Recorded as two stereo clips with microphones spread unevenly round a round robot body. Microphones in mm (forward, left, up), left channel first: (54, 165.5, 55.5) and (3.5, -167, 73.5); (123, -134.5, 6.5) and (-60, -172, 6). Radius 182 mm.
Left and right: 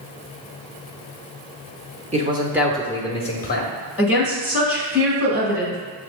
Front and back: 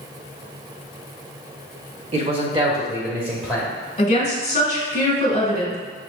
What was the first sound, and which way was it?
A man speaking, 160° right.